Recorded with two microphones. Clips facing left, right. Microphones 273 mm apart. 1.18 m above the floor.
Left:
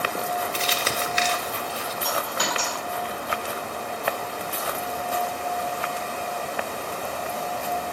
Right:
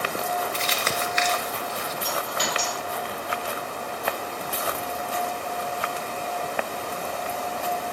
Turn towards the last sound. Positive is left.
turn(degrees=55)  # may be behind; listen again after turning